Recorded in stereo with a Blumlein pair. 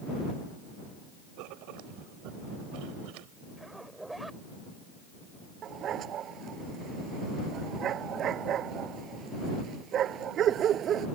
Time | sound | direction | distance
1.4 | writing | 45° right | ?
3.6 | a zipper | 5° right | ?
5.6 | a dog barking | 30° right | ?